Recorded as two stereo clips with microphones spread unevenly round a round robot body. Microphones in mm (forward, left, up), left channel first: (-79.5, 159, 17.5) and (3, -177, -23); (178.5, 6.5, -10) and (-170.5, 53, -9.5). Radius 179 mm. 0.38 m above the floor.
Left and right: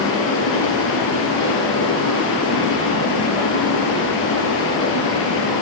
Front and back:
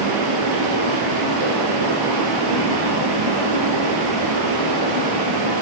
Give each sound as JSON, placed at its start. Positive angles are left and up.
{"t": 0.0, "sound": "running water", "azimuth_deg": 155, "distance_m": 3.5}